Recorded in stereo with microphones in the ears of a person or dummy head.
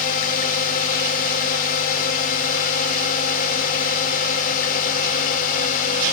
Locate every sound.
0.0 s a drone: 45° left (ahead or behind)